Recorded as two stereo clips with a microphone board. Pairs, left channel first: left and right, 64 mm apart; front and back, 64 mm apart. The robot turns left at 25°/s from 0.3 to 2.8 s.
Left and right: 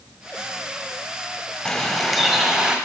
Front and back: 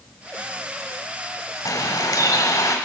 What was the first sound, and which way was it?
A bird, 15° left.